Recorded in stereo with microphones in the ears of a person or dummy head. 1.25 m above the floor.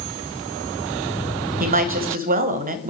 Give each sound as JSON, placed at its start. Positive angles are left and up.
{"t": 1.6, "sound": "a woman speaking", "side_deg": -45, "distance_m": 0.8}